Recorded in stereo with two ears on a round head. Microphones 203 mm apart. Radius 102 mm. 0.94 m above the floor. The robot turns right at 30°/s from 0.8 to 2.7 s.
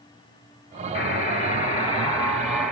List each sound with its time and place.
0.9 s a buzzer: 125° left, 2 m; by 2.7 s 175° left, 2 m